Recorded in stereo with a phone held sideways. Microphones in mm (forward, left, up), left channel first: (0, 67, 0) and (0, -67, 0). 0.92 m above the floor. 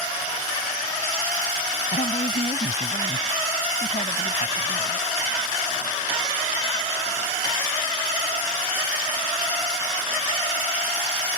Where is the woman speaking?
55° left (ahead or behind).